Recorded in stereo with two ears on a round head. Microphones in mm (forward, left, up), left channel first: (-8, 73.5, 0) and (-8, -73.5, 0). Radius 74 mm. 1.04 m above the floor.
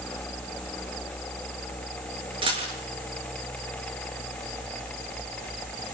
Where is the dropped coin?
35° right (ahead or behind), 6.5 m.